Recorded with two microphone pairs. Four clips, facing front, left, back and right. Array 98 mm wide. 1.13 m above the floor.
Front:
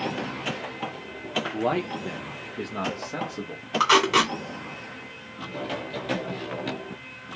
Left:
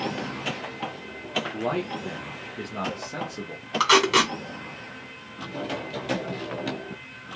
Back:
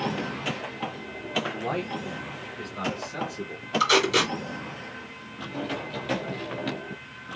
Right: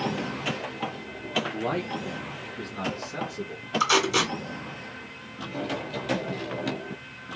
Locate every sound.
1.5 s a man speaking: 15° right, 1.3 m; by 3.6 s 30° left, 2.0 m
3.8 s tape being pulled: 50° left, 2.5 m